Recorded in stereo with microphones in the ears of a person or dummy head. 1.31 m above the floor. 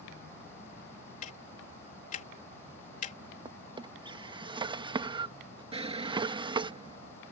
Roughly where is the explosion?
Right.